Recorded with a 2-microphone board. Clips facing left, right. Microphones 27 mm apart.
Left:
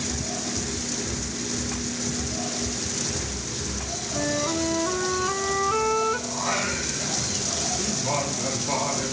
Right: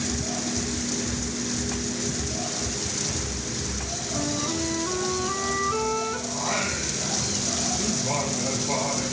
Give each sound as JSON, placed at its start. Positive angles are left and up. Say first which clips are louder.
{"t": 4.1, "sound": "a flute", "louder": "left 3 dB", "side_deg": 15, "distance_m": 0.5}
{"t": 6.3, "sound": "singing", "louder": "left 1 dB", "side_deg": 15, "distance_m": 4.5}